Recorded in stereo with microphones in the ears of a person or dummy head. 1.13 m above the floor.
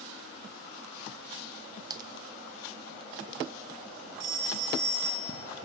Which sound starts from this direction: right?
A phone ringing, at 4.2 s.